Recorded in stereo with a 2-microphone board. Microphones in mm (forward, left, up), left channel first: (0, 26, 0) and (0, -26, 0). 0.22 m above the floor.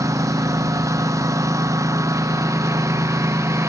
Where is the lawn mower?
90° right; by 3.7 s 60° right (ahead or behind).